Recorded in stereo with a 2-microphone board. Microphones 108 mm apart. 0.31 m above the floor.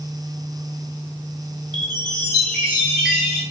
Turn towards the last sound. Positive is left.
turn(degrees=5)  # may be behind; listen again after turning